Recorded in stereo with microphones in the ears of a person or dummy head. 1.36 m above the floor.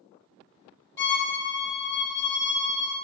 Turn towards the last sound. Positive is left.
turn(degrees=15)  # may be behind; listen again after turning